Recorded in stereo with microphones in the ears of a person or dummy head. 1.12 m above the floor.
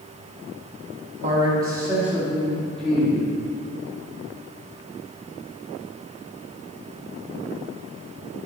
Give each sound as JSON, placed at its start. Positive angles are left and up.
{"t": 1.2, "sound": "a man speaking", "side_deg": -35, "distance_m": 1.4}